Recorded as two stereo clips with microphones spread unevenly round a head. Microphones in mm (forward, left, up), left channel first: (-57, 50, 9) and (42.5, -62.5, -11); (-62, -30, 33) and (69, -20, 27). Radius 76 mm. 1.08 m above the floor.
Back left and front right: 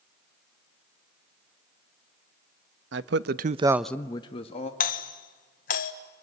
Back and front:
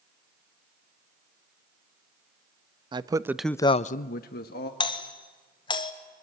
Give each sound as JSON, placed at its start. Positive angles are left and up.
{"t": 2.9, "sound": "a man speaking", "azimuth_deg": -50, "distance_m": 1.0}
{"t": 4.8, "sound": "a doorbell", "azimuth_deg": 140, "distance_m": 1.5}